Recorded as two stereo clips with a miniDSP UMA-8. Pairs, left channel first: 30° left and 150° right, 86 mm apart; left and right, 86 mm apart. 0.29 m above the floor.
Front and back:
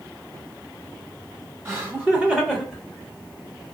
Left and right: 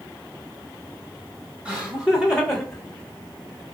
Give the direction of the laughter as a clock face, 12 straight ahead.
5 o'clock.